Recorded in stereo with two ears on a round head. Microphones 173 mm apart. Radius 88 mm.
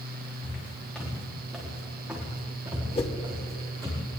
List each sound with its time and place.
0.4 s footsteps: 10° left (ahead or behind), 5 m; by 4.0 s 20° right (ahead or behind), 6.5 m
3.0 s a whoosh: 30° left (ahead or behind), 1.3 m